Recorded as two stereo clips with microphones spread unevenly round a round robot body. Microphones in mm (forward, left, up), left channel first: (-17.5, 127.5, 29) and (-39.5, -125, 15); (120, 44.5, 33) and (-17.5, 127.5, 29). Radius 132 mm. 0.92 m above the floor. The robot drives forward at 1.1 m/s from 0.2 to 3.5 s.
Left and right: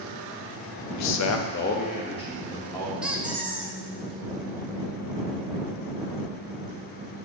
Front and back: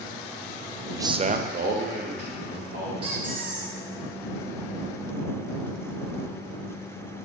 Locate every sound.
0.9 s a man speaking: 70° left, 0.7 m; by 2.9 s 165° left, 2 m
3.0 s a squeak: 175° left, 0.5 m; by 3.8 s straight behind, 0.9 m